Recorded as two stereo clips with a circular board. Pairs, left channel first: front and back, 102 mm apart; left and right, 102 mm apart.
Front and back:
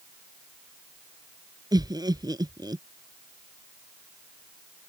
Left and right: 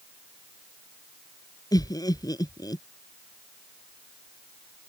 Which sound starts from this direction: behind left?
Laughter, at 1.7 s.